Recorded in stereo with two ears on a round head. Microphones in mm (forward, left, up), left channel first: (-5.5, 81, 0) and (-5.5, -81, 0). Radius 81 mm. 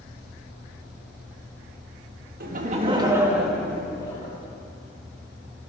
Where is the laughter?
50° right (ahead or behind), 1.8 m; by 4.3 s 25° left (ahead or behind), 2.5 m.